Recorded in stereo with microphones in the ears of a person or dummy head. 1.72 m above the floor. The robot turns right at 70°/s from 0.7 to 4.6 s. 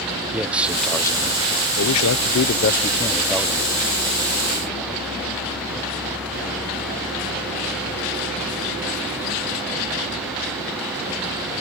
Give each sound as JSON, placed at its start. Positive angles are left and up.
{"t": 0.3, "sound": "a man speaking", "azimuth_deg": -5}